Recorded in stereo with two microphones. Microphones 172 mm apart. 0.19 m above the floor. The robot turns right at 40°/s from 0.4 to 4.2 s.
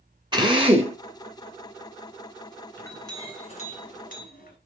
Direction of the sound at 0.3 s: 25° right (ahead or behind).